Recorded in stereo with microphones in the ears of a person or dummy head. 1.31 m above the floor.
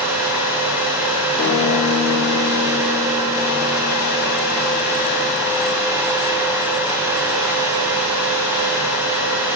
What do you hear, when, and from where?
1.4 s a guitar: 55° left (ahead or behind), 2.5 m